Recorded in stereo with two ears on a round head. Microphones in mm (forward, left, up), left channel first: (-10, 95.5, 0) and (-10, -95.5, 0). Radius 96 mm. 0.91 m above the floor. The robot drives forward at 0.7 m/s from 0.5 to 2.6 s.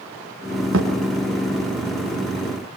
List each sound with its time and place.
0.7 s a thud: 70° right (ahead or behind), 5.5 m